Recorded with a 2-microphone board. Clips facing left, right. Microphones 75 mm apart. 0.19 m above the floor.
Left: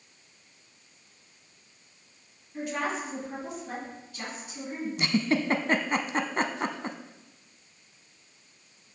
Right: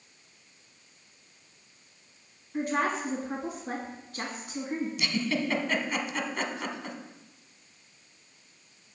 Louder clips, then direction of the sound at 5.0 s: Left 7 dB; 40° left (ahead or behind).